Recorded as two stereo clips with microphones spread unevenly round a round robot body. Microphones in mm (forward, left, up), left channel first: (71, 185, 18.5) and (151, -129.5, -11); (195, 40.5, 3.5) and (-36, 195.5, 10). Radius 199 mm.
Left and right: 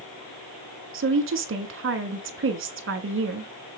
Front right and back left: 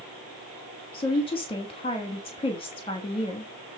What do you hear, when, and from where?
0.9 s a woman speaking: 100° right, 1.1 m